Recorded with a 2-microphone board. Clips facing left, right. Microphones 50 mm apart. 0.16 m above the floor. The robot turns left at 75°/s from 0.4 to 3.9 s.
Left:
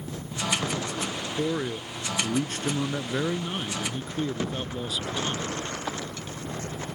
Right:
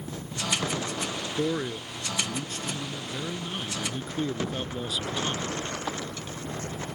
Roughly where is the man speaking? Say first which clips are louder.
Even; behind.